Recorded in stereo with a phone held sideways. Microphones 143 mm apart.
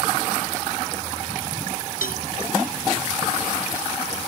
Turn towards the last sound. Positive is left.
turn(degrees=80)